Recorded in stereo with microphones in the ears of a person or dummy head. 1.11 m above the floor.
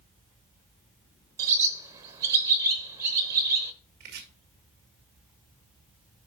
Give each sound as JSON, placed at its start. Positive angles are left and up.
{"t": 1.4, "sound": "a bird", "side_deg": -20, "distance_m": 0.9}
{"t": 4.0, "sound": "chopping", "side_deg": -50, "distance_m": 1.6}